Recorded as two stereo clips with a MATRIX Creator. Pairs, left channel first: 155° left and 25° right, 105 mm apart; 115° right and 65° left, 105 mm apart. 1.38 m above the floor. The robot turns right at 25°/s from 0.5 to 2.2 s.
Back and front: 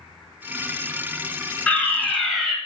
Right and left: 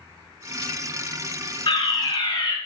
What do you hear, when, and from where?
1.7 s a fire alarm: 125° right, 2 m; by 2.6 s 110° right, 2 m